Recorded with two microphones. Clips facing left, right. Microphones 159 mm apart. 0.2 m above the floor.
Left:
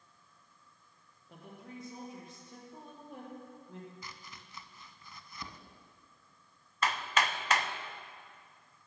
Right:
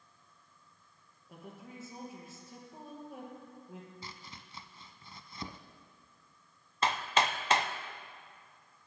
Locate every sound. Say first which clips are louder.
1.3 s a woman speaking: even; 5° right (ahead or behind), 4 m
4.0 s chopping: right 2 dB; 25° right (ahead or behind), 0.6 m
6.8 s hammering: right 2 dB; 25° right (ahead or behind), 0.7 m